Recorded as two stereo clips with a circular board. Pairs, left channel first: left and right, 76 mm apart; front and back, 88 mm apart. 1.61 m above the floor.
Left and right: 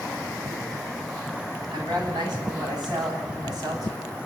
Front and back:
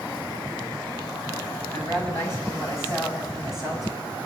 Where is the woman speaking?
65° right, 10 m; by 4.1 s 55° right, 8.5 m.